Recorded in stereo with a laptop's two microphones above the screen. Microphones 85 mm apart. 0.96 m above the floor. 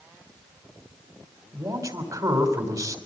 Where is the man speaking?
45° right (ahead or behind), 3 m.